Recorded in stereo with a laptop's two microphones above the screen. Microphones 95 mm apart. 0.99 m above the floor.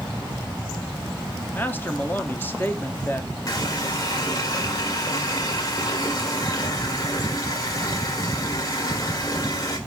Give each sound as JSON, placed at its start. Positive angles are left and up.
{"t": 1.5, "sound": "a man speaking", "side_deg": 20, "distance_m": 0.7}
{"t": 3.5, "sound": "a running tap", "side_deg": 40, "distance_m": 2.0}